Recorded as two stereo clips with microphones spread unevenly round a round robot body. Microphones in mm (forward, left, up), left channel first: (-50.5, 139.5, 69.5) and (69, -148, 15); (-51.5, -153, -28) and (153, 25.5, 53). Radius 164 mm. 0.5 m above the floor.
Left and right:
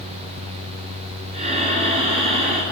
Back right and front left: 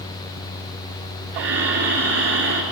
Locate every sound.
1.3 s breathing: 5° left, 3.5 m